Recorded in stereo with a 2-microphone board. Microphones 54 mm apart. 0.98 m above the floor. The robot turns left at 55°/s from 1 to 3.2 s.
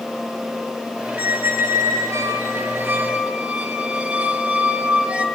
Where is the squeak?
40° right, 1.3 m; by 5.2 s 155° right, 1.3 m.